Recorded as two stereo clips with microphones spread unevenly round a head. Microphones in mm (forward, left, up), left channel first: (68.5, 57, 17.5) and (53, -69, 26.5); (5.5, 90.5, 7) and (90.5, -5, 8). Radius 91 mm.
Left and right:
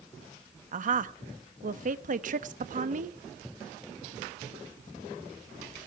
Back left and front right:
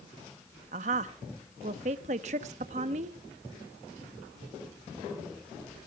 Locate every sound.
0.7 s a woman speaking: 90° right, 1.1 m